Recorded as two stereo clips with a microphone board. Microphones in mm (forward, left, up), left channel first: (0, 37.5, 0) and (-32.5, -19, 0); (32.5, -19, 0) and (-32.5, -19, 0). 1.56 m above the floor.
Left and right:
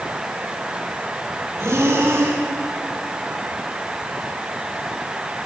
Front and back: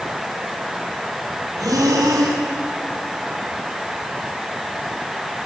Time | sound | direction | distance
1.6 | breathing | 160° right | 4 m